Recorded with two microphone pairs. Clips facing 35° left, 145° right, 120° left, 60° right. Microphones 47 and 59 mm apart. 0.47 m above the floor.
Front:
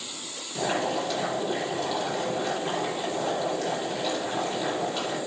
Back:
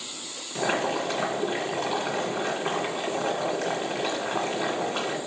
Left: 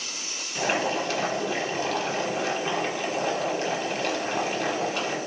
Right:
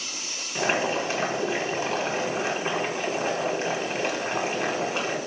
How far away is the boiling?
About 2 m.